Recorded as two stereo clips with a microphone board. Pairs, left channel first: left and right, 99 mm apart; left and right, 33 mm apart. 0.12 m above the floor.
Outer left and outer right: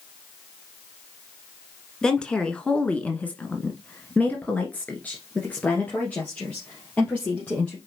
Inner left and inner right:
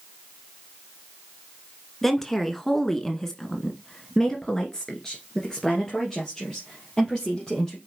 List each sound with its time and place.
2.0 s a woman speaking: 5° left (ahead or behind), 1.5 m; by 7.8 s 15° left (ahead or behind), 3.5 m